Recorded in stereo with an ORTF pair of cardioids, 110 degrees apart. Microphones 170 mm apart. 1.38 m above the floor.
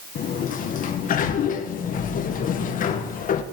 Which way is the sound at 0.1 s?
55° left.